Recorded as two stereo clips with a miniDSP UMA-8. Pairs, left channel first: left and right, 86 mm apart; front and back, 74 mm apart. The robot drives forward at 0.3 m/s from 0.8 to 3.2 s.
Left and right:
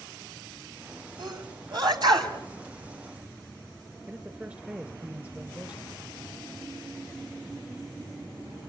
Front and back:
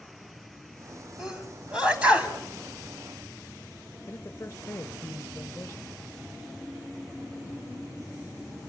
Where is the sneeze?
100° right, 2.5 m; by 2.3 s 110° right, 2.5 m.